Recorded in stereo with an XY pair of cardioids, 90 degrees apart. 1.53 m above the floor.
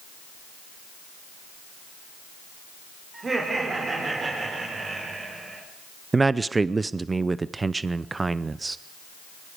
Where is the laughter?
35° right, 4 m; by 5.6 s 45° right, 5 m.